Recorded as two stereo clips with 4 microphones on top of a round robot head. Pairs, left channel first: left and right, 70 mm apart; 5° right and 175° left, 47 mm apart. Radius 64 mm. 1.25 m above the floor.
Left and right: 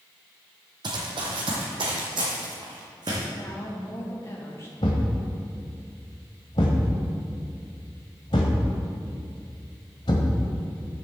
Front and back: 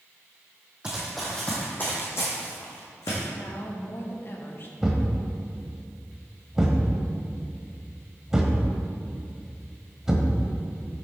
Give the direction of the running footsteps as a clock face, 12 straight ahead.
4 o'clock.